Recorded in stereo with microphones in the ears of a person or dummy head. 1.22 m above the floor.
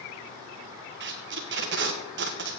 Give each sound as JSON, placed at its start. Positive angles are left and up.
{"t": 1.0, "sound": "tape being pulled", "side_deg": -55, "distance_m": 1.0}